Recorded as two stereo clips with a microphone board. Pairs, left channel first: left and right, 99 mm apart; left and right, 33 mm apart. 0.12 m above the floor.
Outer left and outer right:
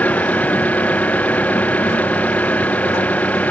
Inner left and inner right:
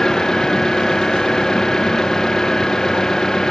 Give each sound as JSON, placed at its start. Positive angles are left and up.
{"t": 0.0, "sound": "an engine running", "side_deg": 15}